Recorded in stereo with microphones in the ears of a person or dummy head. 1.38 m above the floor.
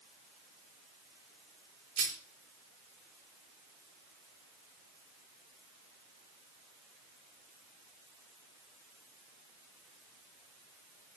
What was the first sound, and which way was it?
A rattle, 75° right (ahead or behind).